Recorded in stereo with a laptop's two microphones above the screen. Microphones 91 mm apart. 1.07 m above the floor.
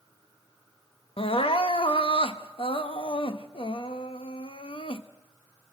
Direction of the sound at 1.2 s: 80° left.